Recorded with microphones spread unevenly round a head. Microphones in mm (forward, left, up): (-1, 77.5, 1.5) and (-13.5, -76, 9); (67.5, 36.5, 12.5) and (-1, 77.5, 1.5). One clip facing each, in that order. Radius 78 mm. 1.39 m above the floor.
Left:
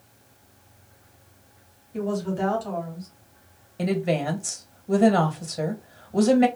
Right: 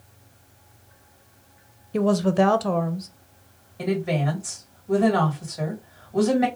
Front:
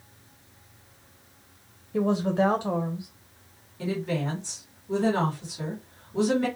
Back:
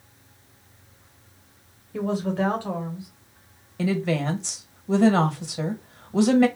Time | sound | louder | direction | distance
1.9 | a woman speaking | right 7 dB, front 2 dB | 110° right | 0.7 m
3.8 | a woman speaking | even, back 5 dB | 145° left | 1.7 m